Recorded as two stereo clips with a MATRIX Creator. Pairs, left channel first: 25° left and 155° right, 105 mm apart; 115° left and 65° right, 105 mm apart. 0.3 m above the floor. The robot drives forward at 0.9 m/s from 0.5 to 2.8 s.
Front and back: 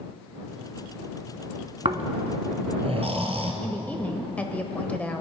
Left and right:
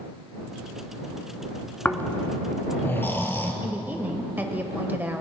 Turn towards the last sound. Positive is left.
turn(degrees=-30)